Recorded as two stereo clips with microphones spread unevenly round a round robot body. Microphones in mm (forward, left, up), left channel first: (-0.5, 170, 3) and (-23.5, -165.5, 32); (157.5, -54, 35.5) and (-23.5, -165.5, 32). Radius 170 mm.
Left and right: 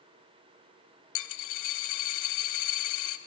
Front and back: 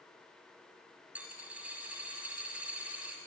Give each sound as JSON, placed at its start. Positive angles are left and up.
{"t": 1.1, "sound": "a dropped coin", "azimuth_deg": 125, "distance_m": 1.0}